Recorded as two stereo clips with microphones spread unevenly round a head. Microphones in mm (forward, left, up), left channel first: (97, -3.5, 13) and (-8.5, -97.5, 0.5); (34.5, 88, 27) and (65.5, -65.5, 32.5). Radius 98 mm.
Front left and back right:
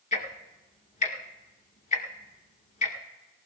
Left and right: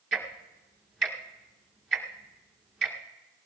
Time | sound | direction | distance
0.1 | ticking | 15° left | 1.9 m